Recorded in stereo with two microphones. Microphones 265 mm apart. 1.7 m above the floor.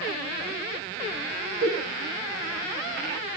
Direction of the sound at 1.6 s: 35° right (ahead or behind).